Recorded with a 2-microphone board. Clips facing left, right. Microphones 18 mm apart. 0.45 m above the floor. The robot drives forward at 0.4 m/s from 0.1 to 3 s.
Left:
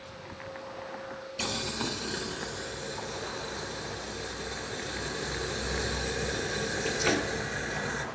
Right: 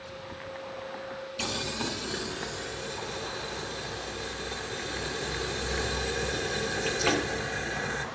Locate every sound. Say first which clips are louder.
1.4 s boiling: even; 5° left (ahead or behind), 0.6 m; by 8.1 s centre (ahead or behind), 1.2 m